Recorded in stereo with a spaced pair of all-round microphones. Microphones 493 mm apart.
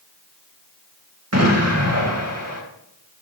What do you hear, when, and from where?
1.3 s an explosion: 30° right (ahead or behind), 2.5 m